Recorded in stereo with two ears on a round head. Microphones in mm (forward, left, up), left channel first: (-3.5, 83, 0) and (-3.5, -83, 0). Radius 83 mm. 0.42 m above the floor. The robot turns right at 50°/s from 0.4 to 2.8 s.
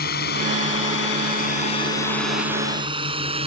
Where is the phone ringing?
No phone ringing in this recording.